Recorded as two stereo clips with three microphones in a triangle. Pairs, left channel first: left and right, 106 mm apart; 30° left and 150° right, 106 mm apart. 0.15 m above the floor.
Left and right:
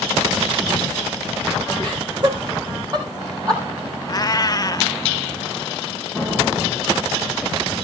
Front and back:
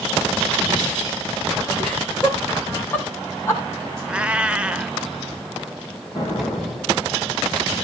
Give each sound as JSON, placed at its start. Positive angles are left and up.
{"t": 1.8, "sound": "laughter", "azimuth_deg": -45, "distance_m": 8.0}
{"t": 4.1, "sound": "a cat meowing", "azimuth_deg": 135, "distance_m": 0.6}
{"t": 6.2, "sound": "an explosion", "azimuth_deg": -25, "distance_m": 6.0}